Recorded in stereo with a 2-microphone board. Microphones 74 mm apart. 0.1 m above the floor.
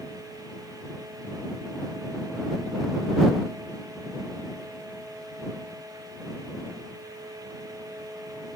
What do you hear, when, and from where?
Only background noise.